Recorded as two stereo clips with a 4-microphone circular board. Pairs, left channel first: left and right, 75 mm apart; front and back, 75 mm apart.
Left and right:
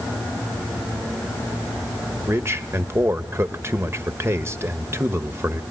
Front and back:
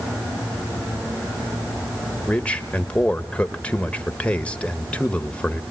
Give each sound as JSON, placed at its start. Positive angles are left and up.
{"t": 2.3, "sound": "a man speaking", "azimuth_deg": -65, "distance_m": 1.1}